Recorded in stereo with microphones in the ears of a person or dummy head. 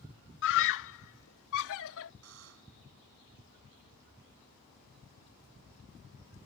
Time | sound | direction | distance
0.4 | a scream | 60° left (ahead or behind) | ?
2.2 | a buzzer | 80° right | ?